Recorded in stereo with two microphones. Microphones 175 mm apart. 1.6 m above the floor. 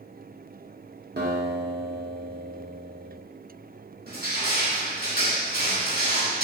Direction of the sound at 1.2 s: 70° right (ahead or behind).